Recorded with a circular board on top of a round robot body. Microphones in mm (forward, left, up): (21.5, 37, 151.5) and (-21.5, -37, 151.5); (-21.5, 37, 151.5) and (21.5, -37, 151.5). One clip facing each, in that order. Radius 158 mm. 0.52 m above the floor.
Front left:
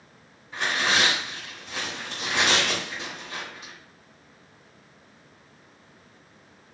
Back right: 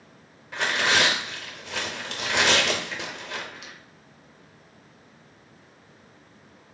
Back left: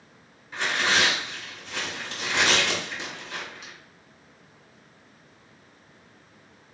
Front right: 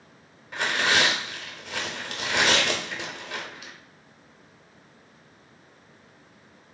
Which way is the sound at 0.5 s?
95° right.